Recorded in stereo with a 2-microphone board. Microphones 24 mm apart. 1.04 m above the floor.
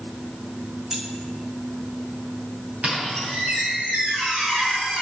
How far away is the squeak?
About 2.5 m.